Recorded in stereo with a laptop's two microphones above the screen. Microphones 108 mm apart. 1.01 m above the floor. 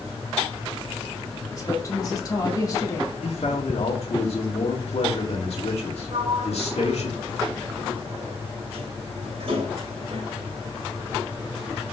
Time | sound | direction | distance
1.5 | a woman speaking | 35° left (ahead or behind) | 2 m
3.2 | a man speaking | 70° left (ahead or behind) | 2 m
6.1 | a sliding door | 65° right (ahead or behind) | 3.5 m